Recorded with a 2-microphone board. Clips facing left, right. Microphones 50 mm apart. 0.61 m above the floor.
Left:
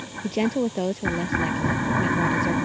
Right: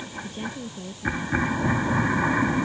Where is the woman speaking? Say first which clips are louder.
Left 16 dB; 80° left; by 2.6 s 70° left (ahead or behind).